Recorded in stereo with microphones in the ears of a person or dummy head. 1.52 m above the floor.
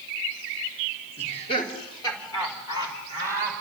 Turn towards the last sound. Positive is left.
turn(degrees=15)  # may be behind; listen again after turning